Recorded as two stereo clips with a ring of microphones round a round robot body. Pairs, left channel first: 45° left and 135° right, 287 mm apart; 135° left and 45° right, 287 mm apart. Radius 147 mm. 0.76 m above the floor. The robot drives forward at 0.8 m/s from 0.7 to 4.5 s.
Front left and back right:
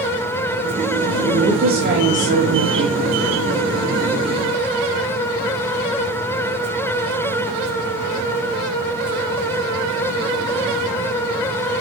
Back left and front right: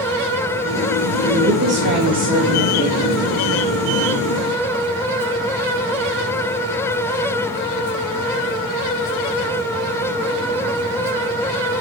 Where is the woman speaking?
70° right, 1.6 m; by 3.2 s 130° right, 1.9 m.